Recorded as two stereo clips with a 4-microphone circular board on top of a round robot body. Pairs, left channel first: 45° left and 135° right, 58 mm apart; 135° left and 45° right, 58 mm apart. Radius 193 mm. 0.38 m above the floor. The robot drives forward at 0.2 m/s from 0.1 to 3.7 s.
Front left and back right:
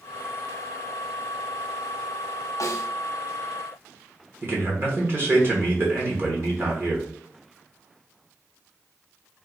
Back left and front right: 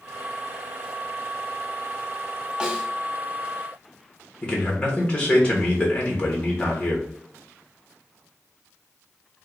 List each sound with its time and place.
2.6 s a snare drum: 30° left, 0.7 m
4.4 s a man speaking: 160° right, 1.4 m